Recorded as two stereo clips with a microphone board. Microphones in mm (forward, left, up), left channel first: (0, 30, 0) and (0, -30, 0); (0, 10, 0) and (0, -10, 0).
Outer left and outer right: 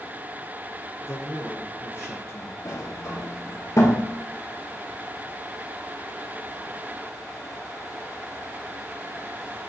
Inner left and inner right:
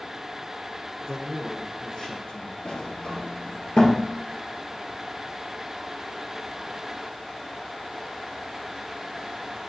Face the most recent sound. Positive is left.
turn(degrees=60)  # may be behind; listen again after turning